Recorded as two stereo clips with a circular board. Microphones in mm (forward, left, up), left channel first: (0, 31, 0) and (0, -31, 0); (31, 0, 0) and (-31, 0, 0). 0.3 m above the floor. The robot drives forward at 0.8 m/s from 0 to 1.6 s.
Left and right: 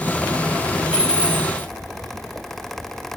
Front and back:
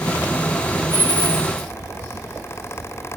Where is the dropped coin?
15° right, 4 m.